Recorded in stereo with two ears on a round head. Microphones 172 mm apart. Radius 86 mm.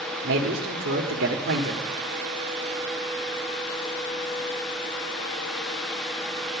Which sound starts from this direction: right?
A man speaking, at 0.2 s.